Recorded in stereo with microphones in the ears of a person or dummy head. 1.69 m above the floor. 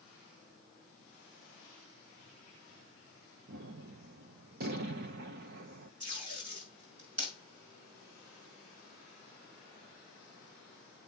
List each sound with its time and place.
3.5 s a gunshot: 55° right (ahead or behind), 0.9 m
6.0 s tape being pulled: 35° right (ahead or behind), 6.5 m